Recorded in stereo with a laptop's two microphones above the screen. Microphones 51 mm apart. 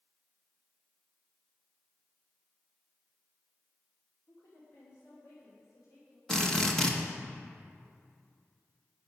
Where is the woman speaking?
85° left, 2.5 m; by 6.2 s 75° left (ahead or behind), 4.5 m.